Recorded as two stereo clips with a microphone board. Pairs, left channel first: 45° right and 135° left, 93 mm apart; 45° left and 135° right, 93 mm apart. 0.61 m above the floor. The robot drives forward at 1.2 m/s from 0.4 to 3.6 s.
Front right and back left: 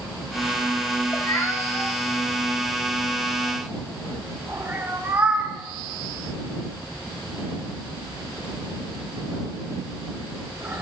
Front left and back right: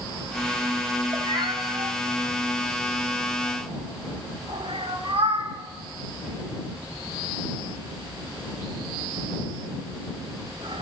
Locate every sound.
1.1 s a cat meowing: 90° right, 1.4 m; by 10.8 s 155° right, 3.5 m